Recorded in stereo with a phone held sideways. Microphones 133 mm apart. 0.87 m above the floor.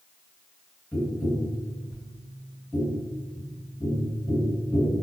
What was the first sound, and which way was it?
Tapping, centre (ahead or behind).